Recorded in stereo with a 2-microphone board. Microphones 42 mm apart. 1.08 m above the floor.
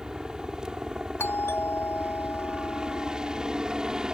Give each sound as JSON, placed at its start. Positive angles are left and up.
{"t": 0.0, "sound": "a helicopter", "side_deg": -15}
{"t": 1.2, "sound": "a doorbell", "side_deg": 70}